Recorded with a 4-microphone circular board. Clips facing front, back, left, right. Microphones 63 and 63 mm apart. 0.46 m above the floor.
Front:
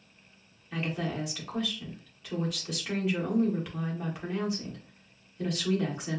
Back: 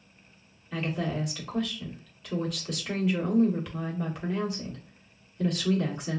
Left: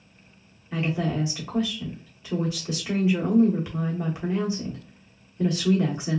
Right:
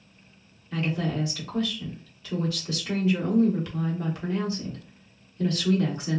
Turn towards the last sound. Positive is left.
turn(degrees=80)